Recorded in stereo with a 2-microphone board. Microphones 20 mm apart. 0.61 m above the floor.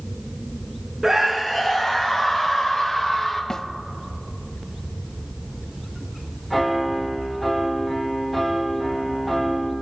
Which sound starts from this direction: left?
A snare drum, at 3.5 s.